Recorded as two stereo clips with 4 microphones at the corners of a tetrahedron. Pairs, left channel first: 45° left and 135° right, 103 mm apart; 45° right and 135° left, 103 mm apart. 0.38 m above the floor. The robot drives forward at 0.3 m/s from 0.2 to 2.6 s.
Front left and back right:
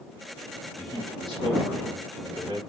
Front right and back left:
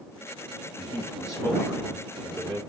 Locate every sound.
0.8 s a man speaking: 100° right, 3 m; by 2.6 s 110° right, 3 m